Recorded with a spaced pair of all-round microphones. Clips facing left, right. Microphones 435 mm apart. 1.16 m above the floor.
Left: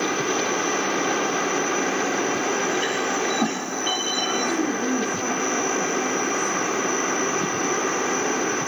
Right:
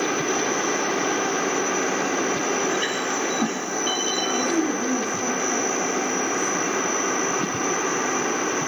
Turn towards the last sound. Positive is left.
turn(degrees=5)  # may be behind; listen again after turning